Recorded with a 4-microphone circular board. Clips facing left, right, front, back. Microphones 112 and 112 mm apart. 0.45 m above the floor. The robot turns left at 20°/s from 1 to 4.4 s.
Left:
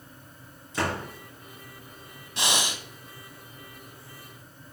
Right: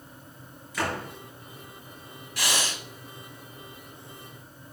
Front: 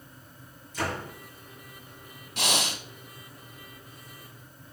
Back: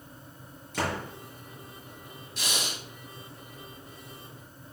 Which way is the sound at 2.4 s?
25° left.